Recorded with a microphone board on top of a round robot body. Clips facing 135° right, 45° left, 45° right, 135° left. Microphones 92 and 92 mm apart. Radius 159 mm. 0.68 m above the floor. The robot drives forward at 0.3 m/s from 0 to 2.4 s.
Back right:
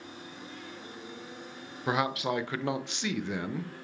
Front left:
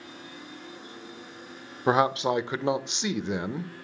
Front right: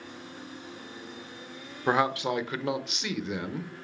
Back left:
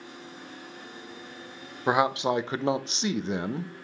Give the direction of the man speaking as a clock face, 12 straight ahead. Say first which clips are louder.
Front left 6 dB, back left 2 dB; 10 o'clock.